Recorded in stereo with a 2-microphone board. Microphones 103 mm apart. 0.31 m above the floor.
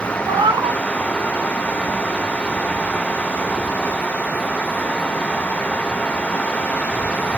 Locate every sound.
0.3 s a cat meowing: 45° right (ahead or behind), 0.6 m